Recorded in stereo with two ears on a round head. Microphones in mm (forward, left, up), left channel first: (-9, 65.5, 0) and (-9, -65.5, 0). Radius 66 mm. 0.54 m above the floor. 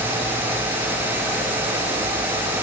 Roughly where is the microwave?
I don't hear a microwave.